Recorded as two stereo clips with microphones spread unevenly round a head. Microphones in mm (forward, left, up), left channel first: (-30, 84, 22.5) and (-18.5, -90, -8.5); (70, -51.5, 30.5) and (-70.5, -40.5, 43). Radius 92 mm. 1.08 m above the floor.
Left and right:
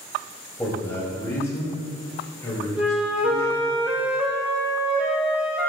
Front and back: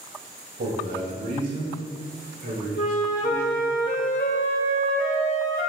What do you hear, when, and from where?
0.6 s a man speaking: 175° left, 2 m; by 3.8 s 170° left, 5 m
2.8 s a flute: 10° left, 0.9 m